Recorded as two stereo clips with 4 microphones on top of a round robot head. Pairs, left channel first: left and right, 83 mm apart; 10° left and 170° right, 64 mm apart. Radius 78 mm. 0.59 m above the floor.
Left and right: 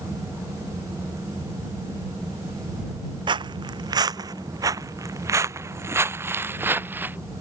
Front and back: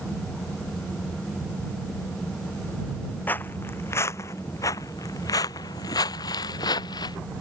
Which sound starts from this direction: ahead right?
Footsteps, at 3.3 s.